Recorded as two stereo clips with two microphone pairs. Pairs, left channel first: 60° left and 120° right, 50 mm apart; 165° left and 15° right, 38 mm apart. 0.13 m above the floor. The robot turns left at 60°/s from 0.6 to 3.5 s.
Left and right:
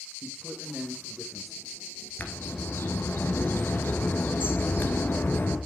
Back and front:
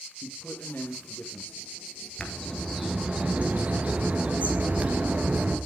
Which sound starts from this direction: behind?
A man speaking, at 0.2 s.